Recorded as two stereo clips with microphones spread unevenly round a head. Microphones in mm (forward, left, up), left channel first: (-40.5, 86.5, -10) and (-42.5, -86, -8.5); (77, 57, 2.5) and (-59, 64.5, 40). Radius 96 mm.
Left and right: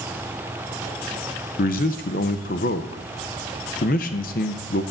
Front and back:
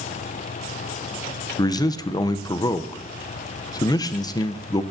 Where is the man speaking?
45° left, 0.6 m.